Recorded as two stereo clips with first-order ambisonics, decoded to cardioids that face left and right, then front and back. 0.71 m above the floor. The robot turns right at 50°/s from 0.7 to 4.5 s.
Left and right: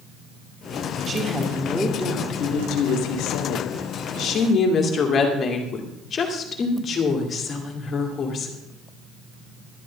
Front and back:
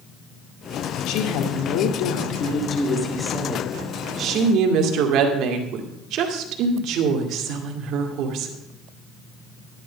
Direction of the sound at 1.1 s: 25° right.